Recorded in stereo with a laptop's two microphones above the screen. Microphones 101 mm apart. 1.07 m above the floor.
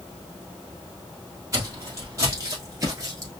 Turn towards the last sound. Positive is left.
turn(degrees=-30)  # may be behind; listen again after turning